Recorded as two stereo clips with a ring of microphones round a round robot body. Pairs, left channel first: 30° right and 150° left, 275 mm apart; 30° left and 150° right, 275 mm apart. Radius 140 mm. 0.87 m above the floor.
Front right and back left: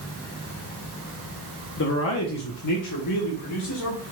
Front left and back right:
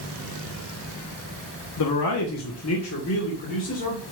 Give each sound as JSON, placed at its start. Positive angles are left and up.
{"t": 1.8, "sound": "a man speaking", "azimuth_deg": 15, "distance_m": 1.2}